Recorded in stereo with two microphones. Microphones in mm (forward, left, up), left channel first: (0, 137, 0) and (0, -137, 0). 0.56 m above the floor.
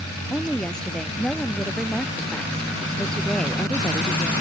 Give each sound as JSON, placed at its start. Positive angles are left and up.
{"t": 0.3, "sound": "a woman speaking", "side_deg": 5}